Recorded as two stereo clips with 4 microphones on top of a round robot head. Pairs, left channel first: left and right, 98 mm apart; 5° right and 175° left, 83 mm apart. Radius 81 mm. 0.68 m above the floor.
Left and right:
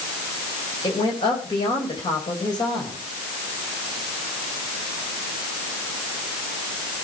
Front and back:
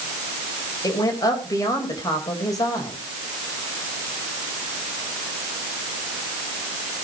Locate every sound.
0.8 s a woman speaking: 40° left, 3.5 m